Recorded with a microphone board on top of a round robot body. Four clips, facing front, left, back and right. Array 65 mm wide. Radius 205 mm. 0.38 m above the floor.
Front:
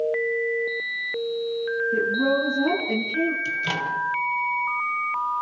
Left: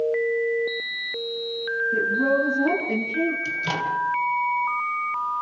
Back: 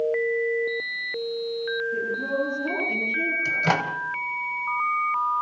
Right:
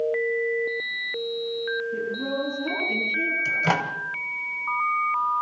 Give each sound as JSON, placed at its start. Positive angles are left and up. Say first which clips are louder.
{"t": 1.9, "sound": "a woman speaking", "louder": "left 7 dB, front 5 dB", "azimuth_deg": 30, "distance_m": 8.5}
{"t": 3.5, "sound": "a microwave", "louder": "right 2 dB, back 3 dB", "azimuth_deg": -140, "distance_m": 2.5}